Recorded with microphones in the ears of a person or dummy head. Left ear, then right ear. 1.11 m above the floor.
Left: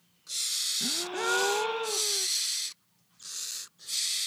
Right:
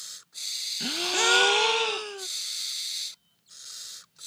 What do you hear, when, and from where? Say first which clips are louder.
0.8 s a gasp: right 5 dB; 80° right